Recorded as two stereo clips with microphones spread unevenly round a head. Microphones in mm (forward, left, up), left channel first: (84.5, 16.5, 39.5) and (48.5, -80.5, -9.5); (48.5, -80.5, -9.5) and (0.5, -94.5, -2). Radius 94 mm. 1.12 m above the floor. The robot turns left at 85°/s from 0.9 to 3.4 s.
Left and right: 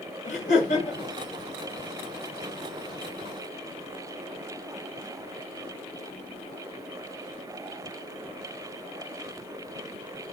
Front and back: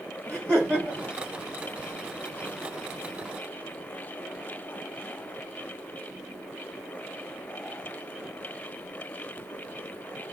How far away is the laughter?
About 2.5 m.